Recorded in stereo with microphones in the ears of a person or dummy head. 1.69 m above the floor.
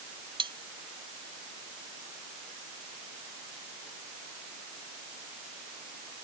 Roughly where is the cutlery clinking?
Right.